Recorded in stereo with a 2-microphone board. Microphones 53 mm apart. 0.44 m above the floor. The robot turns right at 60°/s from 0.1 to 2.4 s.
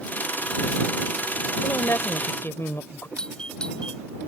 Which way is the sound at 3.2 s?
15° left (ahead or behind).